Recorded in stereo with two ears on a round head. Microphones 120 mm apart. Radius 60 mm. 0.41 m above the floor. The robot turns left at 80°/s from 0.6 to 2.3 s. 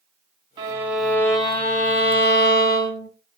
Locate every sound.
0.6 s a violin: 145° right, 1.7 m; by 3.1 s 80° left, 1.7 m